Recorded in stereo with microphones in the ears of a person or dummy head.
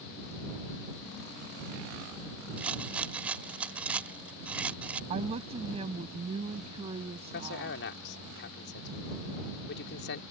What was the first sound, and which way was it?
A rattle, 5° right (ahead or behind).